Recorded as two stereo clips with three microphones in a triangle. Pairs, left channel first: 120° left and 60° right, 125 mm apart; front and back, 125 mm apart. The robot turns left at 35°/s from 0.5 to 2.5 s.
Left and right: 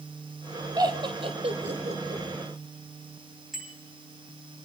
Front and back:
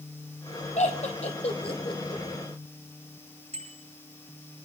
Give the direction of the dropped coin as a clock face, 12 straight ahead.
No dropped coin in this recording.